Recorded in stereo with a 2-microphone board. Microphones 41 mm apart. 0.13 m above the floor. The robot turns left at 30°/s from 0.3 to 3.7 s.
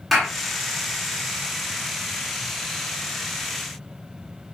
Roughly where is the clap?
Centre.